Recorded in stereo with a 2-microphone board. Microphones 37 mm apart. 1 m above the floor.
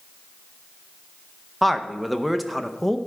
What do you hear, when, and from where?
1.6 s a man speaking: centre (ahead or behind), 0.5 m